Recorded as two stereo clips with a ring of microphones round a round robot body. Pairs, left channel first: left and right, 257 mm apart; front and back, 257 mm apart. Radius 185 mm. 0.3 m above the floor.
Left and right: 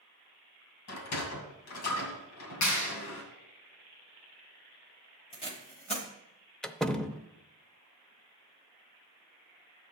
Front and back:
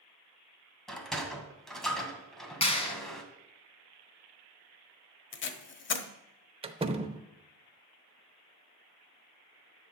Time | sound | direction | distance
0.9 | a sliding door | 90° left | 2 m
2.6 | a clap | 65° left | 2.5 m
5.3 | tape being pulled | 25° left | 1.1 m
6.6 | a door slam | 175° left | 0.7 m